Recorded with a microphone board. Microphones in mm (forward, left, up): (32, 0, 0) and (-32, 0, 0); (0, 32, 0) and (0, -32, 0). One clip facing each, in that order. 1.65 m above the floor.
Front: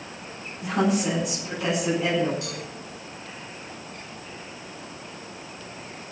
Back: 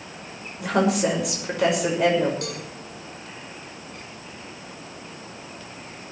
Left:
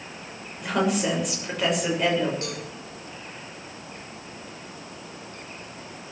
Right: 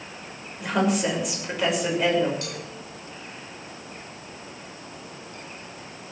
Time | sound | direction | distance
0.6 | a woman speaking | straight behind | 6.5 m
2.4 | a cowbell | 150° left | 6.5 m